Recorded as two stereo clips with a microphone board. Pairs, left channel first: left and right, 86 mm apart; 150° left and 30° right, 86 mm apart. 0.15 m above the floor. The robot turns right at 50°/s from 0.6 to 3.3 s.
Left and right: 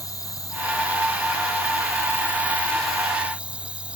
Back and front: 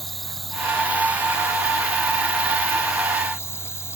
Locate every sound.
0.0 s an insect: 60° left, 1.3 m; by 4.0 s 165° right, 1.3 m